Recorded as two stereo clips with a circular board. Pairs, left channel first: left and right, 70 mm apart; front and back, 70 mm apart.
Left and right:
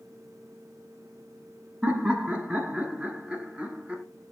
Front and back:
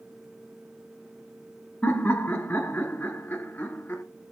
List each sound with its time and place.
1.8 s laughter: 35° right, 1.1 m